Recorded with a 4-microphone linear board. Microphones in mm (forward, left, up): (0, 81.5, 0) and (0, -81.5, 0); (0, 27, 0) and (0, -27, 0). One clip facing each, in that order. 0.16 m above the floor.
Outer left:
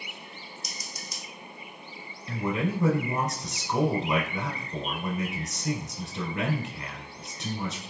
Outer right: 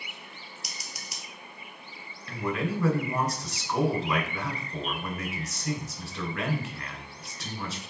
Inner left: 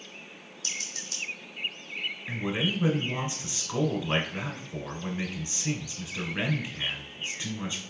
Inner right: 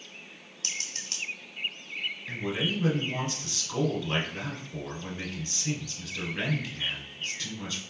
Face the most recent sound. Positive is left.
turn(degrees=25)  # may be behind; listen again after turning